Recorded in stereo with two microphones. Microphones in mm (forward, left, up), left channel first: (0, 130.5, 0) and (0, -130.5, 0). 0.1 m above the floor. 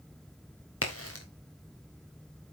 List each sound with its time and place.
0.8 s a crack: 60° left (ahead or behind), 2 m